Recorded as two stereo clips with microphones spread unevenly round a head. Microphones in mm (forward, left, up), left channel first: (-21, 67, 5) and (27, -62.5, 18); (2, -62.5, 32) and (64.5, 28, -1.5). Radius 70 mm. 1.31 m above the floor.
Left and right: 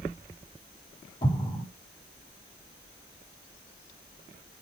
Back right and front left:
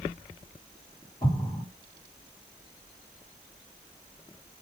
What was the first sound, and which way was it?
An explosion, 175° left.